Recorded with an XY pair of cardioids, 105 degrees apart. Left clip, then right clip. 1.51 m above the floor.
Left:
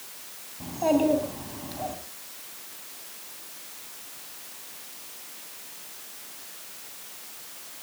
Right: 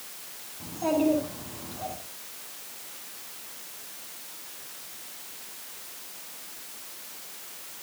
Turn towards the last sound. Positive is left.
turn(degrees=40)